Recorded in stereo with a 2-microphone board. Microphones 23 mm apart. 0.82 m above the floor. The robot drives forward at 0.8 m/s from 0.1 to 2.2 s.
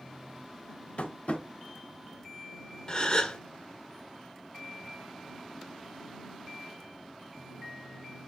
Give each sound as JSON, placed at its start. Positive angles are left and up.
{"t": 1.0, "sound": "tapping", "side_deg": 75, "distance_m": 1.4}
{"t": 2.9, "sound": "a gasp", "side_deg": 40, "distance_m": 1.4}